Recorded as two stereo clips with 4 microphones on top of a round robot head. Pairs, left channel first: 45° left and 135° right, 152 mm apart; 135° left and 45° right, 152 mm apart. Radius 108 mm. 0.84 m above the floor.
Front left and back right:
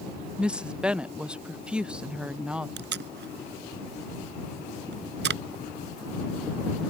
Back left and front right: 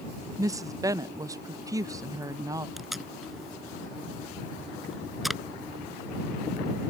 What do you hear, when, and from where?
0.4 s a woman speaking: 65° right
2.8 s tape being pulled: 135° right